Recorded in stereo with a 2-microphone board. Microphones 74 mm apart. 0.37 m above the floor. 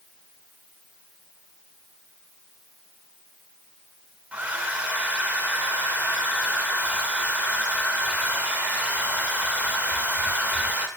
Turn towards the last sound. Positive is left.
turn(degrees=-20)  # may be behind; listen again after turning